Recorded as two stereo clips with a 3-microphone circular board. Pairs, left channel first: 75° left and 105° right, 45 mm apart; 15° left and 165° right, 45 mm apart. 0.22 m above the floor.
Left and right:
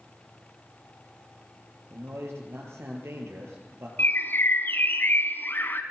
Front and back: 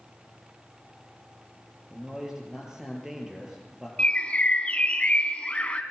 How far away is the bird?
About 1.3 m.